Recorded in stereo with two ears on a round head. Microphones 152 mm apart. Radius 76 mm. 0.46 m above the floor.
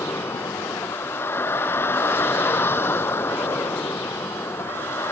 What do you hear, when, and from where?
0.0 s a vehicle: 15° left (ahead or behind)